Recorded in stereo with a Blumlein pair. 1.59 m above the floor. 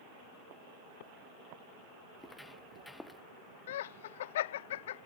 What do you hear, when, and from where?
2.2 s footsteps: 5° left
3.7 s laughter: 55° left